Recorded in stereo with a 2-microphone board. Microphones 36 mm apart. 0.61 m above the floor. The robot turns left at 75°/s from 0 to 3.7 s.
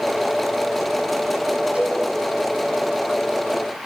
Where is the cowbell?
30° right (ahead or behind), 9 m; by 2.0 s 10° right (ahead or behind), 9 m.